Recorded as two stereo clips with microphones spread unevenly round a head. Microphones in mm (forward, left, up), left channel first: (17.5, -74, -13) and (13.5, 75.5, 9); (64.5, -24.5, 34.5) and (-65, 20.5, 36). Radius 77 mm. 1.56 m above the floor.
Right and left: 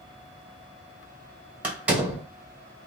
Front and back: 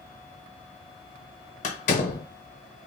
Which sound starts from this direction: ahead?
A door slam, at 1.6 s.